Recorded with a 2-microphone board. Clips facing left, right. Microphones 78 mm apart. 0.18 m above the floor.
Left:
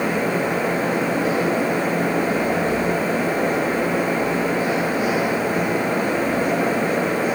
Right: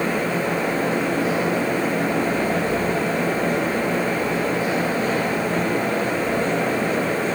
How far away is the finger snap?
No finger snap in this recording.